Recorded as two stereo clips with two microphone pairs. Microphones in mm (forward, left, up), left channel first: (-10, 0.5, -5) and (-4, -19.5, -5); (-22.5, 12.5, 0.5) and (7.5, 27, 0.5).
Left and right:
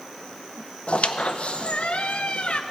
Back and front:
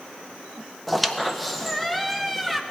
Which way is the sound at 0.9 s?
120° left.